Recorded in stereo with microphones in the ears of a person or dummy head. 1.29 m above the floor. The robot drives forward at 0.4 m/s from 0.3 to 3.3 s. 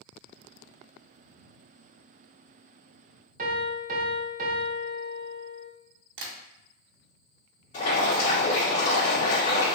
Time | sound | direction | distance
3.4 | a piano | 45° right (ahead or behind) | 0.6 m
6.2 | tapping | 65° right (ahead or behind) | 0.9 m
7.7 | boiling | 35° left (ahead or behind) | 1.8 m